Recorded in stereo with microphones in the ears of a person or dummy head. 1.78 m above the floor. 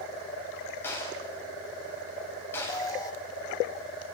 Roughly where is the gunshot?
Centre.